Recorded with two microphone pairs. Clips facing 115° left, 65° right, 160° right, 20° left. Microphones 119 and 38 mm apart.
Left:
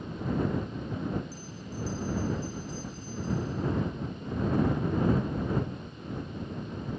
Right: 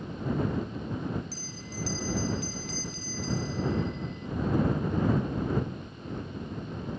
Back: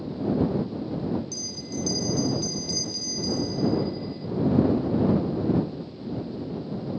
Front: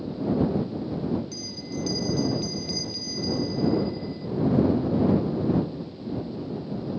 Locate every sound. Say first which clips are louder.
1.3 s a bell: left 1 dB, even; 55° right